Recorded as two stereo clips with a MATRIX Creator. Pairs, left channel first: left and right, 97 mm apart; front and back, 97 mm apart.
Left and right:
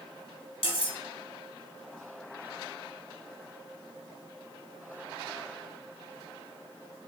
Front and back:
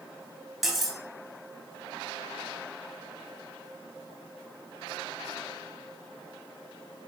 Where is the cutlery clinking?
95° left, 1.5 m.